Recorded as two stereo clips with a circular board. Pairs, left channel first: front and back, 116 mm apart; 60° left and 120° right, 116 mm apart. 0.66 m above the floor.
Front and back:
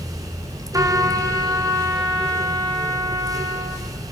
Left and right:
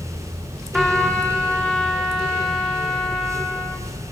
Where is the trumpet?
150° left, 0.9 m.